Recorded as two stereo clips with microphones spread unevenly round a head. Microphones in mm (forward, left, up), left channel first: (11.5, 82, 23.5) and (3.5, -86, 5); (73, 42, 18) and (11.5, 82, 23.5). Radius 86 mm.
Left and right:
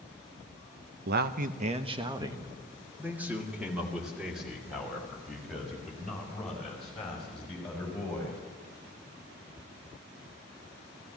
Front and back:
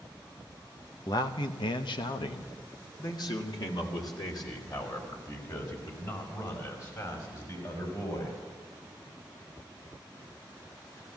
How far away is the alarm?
No alarm in this recording.